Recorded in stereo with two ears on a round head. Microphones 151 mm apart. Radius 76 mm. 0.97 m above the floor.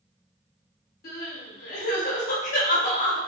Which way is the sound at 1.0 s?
55° left (ahead or behind).